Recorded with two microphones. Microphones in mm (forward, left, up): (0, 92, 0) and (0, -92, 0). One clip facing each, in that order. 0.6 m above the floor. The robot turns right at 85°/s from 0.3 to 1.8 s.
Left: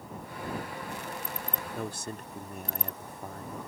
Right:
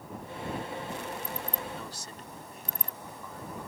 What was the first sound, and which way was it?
A man speaking, 55° left (ahead or behind).